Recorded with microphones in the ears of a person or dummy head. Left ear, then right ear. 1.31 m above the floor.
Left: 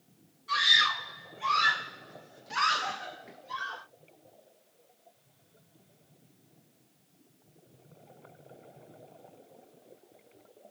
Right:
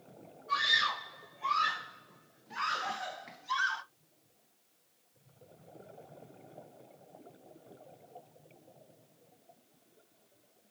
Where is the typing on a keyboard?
I don't hear typing on a keyboard.